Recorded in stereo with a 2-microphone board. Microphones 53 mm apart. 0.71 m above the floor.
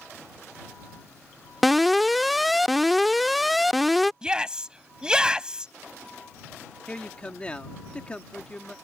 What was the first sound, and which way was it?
An alarm, centre (ahead or behind).